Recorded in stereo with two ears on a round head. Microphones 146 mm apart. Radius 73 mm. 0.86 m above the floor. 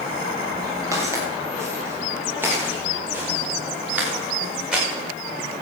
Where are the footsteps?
20° right (ahead or behind), 6 m; by 4.8 s 5° right (ahead or behind), 7.5 m.